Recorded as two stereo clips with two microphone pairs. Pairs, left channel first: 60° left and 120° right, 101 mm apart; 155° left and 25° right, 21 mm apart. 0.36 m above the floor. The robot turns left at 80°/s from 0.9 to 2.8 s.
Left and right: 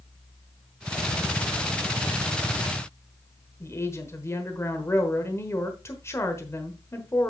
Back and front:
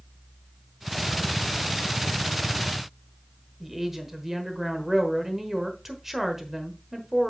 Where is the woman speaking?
35° left, 1.2 m.